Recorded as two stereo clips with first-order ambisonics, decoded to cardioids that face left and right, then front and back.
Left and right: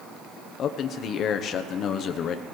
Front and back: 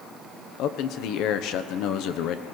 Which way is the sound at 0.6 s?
35° left.